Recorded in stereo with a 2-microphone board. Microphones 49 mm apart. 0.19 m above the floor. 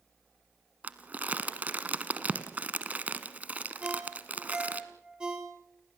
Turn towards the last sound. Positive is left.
turn(degrees=-15)  # may be behind; listen again after turning